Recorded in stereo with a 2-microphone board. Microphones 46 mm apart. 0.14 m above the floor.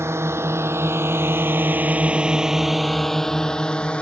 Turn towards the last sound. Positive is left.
turn(degrees=25)  # may be behind; listen again after turning